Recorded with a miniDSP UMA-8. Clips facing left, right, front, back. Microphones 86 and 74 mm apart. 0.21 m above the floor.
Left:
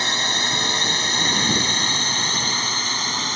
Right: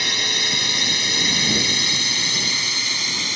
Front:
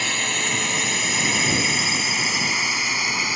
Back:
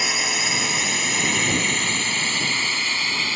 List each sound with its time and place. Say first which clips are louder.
0.0 s a drone: left 3 dB, even; 105° left; by 3.4 s 65° left